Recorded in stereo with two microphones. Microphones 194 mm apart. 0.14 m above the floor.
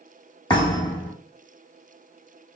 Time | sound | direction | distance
0.5 | a thud | 20° left (ahead or behind) | 3.5 m